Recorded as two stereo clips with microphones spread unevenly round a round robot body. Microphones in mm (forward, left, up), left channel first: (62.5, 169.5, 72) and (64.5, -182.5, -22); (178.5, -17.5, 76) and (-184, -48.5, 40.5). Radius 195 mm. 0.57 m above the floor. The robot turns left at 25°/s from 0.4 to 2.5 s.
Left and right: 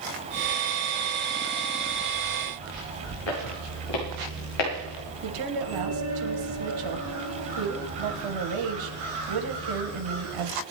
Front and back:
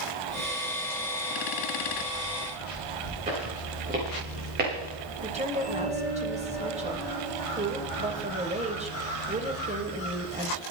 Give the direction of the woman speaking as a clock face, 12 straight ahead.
3 o'clock.